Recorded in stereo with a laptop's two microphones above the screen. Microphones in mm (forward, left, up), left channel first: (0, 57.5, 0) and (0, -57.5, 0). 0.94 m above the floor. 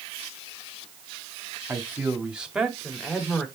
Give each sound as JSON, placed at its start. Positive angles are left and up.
{"t": 1.7, "sound": "a man speaking", "side_deg": -20, "distance_m": 1.7}